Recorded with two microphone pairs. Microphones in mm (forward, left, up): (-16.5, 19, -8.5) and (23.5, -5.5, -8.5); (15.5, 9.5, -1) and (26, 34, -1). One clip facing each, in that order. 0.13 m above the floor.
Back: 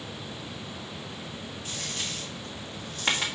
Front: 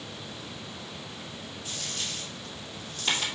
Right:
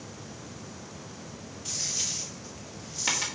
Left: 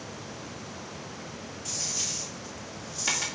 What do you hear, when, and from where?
1.6 s a dropped coin: 170° left, 1.9 m